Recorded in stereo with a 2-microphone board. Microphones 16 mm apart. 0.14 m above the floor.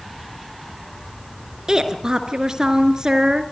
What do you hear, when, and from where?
1.7 s a woman speaking: 50° right (ahead or behind), 2.5 m